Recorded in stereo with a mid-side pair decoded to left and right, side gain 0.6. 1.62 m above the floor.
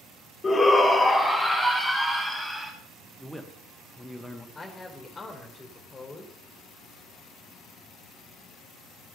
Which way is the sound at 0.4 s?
25° left.